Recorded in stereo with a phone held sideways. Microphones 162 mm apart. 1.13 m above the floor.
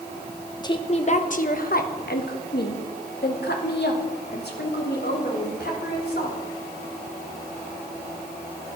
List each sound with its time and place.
0.6 s a woman speaking: 25° left (ahead or behind), 0.9 m; by 6.4 s 80° left, 4 m